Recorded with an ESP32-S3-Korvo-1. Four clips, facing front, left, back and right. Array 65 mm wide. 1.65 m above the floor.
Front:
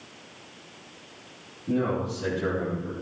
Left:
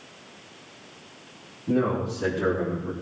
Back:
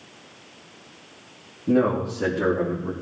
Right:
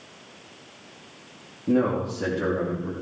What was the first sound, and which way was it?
A man speaking, 145° right.